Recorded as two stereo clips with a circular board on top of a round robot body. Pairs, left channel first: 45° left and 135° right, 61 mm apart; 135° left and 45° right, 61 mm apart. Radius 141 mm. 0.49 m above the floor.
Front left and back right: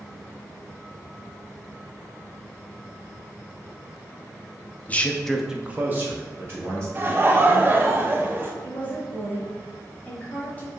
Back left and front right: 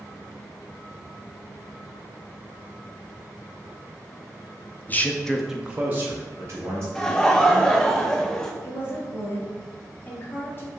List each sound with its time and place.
4.9 s a man speaking: 95° left, 0.8 m; by 6.8 s 90° right, 1.5 m
7.0 s laughter: 150° right, 0.7 m
8.6 s a woman speaking: 100° left, 1.6 m